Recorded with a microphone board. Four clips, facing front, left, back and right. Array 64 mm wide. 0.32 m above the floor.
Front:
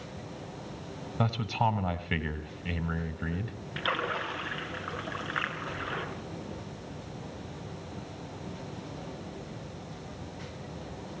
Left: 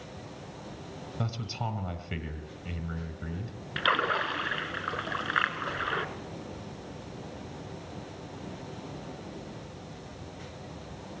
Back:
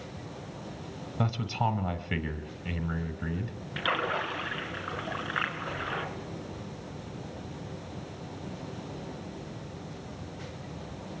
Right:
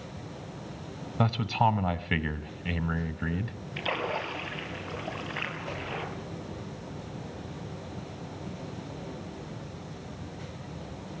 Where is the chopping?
I don't hear chopping.